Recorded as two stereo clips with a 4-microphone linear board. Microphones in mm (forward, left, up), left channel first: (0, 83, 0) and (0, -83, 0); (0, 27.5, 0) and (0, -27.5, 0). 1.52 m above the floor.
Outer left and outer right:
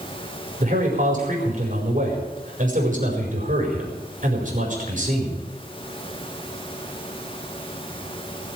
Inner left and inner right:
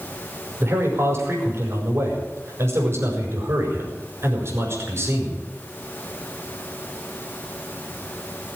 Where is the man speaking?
50° right (ahead or behind), 5 m.